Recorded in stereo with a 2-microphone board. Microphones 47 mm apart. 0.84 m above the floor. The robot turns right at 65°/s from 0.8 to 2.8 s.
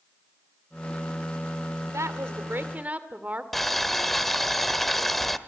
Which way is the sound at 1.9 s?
90° right.